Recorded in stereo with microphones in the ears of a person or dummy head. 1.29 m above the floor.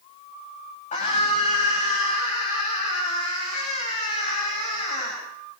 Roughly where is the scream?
Left.